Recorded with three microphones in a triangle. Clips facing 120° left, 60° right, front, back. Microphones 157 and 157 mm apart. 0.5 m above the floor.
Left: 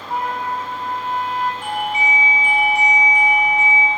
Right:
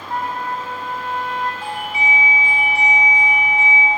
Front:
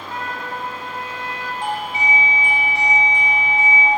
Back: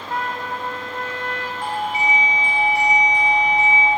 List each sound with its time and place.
0.1 s a trumpet: 155° right, 0.5 m
1.6 s a doorbell: 40° right, 1.3 m